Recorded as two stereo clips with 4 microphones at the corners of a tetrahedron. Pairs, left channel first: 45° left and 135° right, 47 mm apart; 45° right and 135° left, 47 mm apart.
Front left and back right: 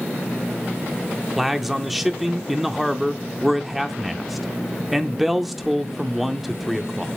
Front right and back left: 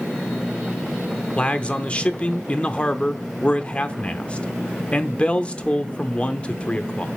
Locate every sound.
1.4 s a man speaking: 55° right, 0.7 m